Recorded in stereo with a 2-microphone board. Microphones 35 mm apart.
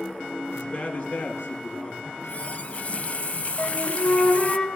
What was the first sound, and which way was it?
A man speaking, 60° left (ahead or behind).